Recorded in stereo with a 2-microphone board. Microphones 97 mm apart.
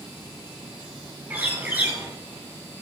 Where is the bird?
15° right (ahead or behind), 1.6 m.